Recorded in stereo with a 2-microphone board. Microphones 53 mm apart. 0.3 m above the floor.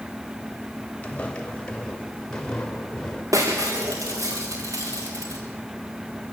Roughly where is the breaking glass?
Right.